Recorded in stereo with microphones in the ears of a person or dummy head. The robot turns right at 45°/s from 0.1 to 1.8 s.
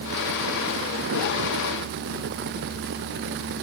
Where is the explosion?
I don't hear an explosion.